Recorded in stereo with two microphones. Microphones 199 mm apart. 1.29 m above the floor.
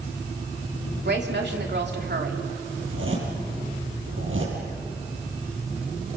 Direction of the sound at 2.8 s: 80° right.